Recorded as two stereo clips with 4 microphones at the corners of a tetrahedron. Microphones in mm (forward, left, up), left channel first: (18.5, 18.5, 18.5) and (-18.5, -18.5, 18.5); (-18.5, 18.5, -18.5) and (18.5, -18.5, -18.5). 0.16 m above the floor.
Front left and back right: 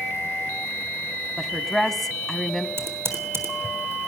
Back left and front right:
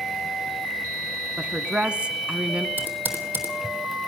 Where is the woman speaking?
35° right, 1.3 m.